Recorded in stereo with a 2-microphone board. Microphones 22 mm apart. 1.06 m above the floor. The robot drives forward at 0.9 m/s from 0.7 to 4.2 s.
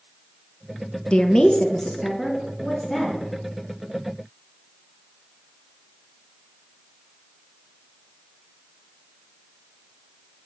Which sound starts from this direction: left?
A woman speaking, at 1.1 s.